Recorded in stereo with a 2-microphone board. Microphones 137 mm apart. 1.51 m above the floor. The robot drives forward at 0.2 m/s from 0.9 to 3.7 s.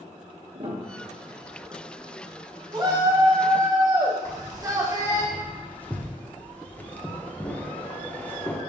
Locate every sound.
0.5 s a piano: 40° right (ahead or behind), 1.1 m
2.7 s a shout: 30° right (ahead or behind), 1.8 m; by 5.2 s 25° right (ahead or behind), 2 m
4.2 s keys jangling: 10° left (ahead or behind), 0.7 m